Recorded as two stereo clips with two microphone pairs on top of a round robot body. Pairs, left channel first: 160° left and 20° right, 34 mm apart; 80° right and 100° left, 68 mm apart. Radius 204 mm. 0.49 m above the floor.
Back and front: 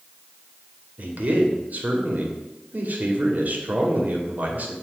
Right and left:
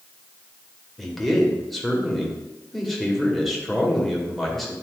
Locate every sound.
1.0 s a man speaking: 5° left, 1.7 m